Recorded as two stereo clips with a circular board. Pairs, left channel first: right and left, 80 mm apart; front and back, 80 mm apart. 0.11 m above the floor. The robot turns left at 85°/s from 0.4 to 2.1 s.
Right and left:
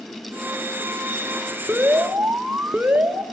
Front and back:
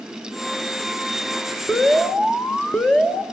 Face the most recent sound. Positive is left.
turn(degrees=55)